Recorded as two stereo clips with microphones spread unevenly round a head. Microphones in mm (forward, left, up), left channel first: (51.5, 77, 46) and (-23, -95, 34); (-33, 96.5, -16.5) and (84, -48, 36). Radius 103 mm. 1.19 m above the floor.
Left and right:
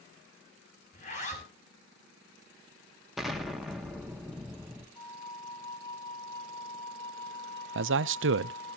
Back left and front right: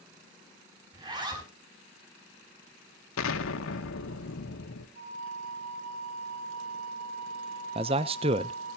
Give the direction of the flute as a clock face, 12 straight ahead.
12 o'clock.